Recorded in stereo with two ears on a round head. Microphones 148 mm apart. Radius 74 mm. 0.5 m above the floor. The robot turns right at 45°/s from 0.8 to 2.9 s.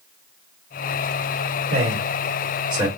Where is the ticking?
No ticking in this recording.